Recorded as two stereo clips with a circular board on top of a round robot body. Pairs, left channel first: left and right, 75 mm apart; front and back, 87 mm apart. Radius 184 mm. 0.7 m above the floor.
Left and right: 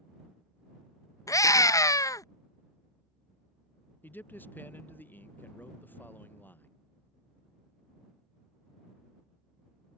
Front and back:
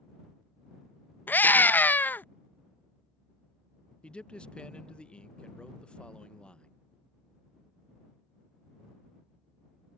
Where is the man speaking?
65° left.